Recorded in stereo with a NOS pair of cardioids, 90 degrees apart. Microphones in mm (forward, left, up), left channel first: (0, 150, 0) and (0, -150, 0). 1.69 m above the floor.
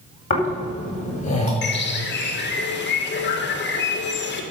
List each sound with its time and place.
0.3 s snoring: 25° left, 4.5 m
1.6 s a bird: 40° left, 1.8 m